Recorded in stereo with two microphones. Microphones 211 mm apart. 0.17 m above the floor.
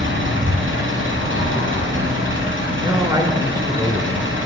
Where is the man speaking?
15° right (ahead or behind), 1.2 m.